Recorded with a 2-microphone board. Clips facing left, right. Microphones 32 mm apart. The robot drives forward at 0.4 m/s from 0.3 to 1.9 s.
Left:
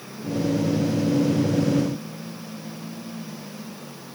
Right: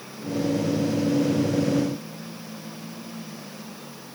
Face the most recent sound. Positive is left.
No sound to turn to.